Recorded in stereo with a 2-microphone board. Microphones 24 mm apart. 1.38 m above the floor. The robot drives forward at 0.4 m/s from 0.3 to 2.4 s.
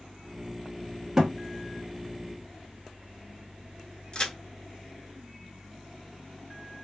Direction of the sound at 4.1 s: 35° left (ahead or behind).